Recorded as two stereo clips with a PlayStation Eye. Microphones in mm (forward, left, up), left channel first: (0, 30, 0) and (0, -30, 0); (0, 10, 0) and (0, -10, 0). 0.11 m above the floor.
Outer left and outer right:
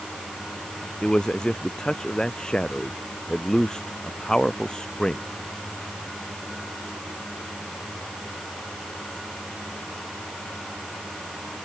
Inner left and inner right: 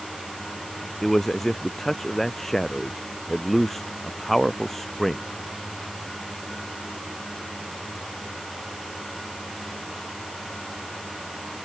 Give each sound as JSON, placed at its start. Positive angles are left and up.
{"t": 1.0, "sound": "a man speaking", "side_deg": 10}